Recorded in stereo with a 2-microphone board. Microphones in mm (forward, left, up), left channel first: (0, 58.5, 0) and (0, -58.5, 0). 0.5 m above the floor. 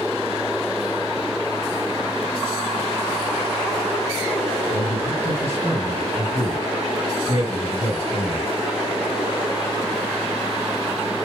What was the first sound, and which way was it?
A man speaking, 55° left (ahead or behind).